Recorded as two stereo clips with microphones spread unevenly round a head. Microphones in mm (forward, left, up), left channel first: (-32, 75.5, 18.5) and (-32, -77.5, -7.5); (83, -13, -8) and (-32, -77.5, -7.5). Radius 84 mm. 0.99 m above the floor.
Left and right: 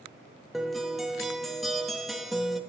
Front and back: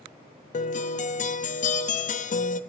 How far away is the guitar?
About 0.6 m.